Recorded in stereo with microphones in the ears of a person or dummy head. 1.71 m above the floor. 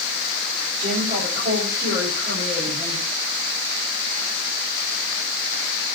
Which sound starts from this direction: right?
A woman speaking, at 0.8 s.